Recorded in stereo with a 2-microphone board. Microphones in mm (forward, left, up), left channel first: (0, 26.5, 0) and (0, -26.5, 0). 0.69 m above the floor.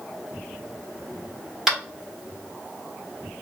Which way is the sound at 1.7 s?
5° right (ahead or behind).